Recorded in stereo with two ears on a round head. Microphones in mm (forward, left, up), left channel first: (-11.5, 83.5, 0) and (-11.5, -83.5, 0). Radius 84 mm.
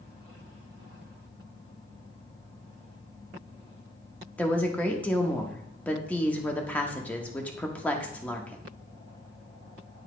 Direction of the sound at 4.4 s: 10° left (ahead or behind).